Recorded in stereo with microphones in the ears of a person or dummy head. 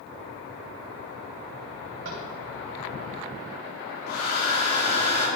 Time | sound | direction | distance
2.0 | tapping | 70° right (ahead or behind) | 3.5 m
4.1 | a hair dryer | 60° left (ahead or behind) | 4.5 m